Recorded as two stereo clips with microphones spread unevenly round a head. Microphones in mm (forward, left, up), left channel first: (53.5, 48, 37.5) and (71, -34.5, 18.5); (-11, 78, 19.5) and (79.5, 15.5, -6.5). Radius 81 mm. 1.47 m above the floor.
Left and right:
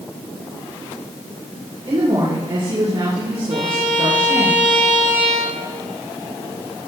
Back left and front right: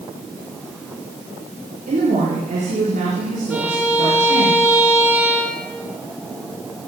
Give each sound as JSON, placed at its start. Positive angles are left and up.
{"t": 1.9, "sound": "a woman speaking", "azimuth_deg": -65, "distance_m": 4.0}
{"t": 3.5, "sound": "a violin", "azimuth_deg": -130, "distance_m": 0.8}